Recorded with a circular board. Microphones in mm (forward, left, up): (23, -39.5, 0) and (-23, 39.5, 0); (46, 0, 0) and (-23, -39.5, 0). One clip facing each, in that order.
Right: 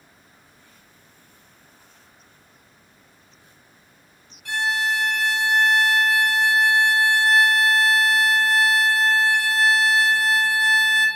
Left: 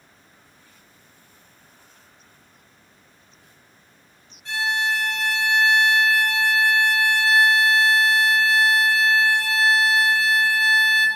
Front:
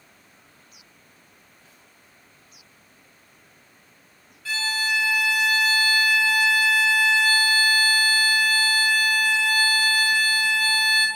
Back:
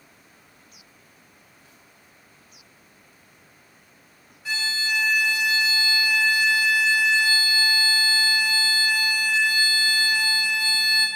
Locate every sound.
4.5 s a violin: 80° right, 0.5 m